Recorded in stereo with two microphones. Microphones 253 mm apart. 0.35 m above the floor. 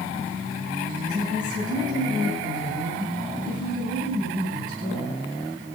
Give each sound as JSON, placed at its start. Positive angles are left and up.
{"t": 1.1, "sound": "a woman speaking", "side_deg": -65, "distance_m": 8.5}